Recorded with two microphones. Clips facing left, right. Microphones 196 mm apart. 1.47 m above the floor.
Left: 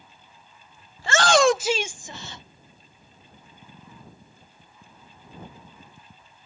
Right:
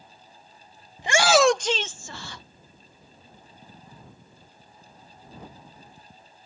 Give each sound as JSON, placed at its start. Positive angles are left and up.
{"t": 1.0, "sound": "a shout", "side_deg": -20}